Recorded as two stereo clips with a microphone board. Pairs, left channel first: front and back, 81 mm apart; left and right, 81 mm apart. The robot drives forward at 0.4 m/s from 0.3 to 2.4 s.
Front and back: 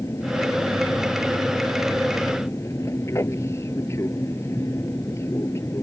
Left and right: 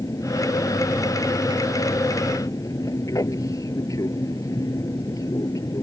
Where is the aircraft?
50° left.